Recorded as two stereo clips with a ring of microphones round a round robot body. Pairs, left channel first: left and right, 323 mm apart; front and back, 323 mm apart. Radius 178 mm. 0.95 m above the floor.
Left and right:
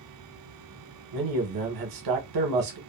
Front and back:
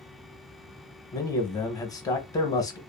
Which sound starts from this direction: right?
A man speaking, at 1.1 s.